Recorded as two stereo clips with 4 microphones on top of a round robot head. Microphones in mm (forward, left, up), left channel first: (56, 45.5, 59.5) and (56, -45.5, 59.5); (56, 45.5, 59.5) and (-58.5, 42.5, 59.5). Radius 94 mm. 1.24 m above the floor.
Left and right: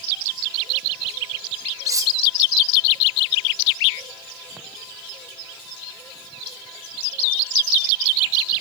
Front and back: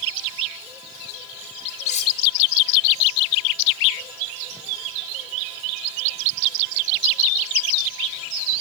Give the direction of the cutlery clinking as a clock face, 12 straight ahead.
1 o'clock.